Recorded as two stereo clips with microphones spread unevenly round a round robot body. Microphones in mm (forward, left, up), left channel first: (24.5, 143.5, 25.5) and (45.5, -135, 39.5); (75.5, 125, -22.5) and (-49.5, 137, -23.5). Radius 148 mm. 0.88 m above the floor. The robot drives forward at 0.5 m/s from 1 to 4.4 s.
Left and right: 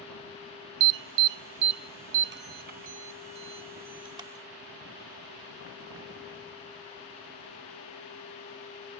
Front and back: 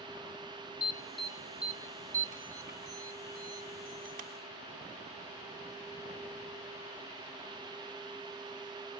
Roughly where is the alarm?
Right.